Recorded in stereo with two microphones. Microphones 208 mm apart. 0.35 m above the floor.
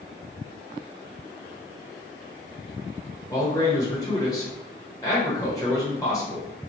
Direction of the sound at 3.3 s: 15° left (ahead or behind).